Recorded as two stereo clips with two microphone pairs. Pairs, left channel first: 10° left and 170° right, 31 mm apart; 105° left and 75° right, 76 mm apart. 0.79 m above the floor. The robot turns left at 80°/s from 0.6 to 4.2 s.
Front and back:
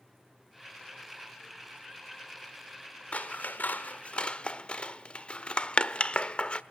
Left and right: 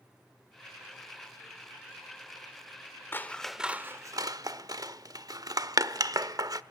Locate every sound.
3.1 s scissors: 45° left, 1.0 m; by 6.6 s 45° right, 1.0 m